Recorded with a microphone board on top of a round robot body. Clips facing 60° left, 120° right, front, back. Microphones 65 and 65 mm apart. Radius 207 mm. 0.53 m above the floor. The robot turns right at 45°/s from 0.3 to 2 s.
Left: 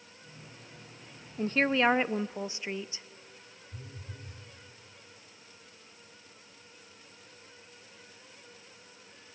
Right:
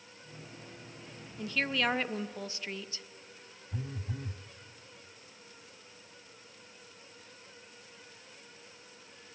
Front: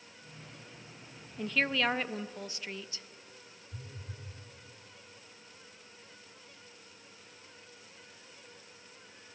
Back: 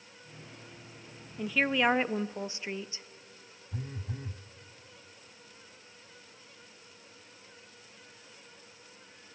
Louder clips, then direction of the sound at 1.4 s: Left 6 dB, back 3 dB; 95° left.